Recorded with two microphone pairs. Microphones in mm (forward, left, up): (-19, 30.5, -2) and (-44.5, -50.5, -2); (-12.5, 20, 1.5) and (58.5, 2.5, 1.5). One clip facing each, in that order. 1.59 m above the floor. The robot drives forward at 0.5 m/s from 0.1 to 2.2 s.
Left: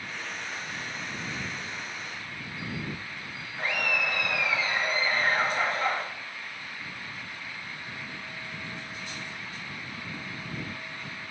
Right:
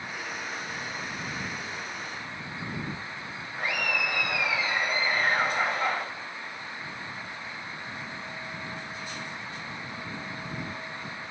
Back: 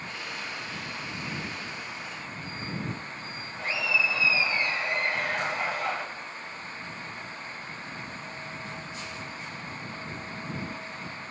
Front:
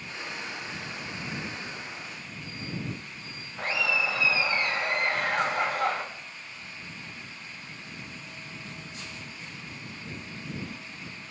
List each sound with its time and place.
3.6 s laughter: 35° right, 1.0 m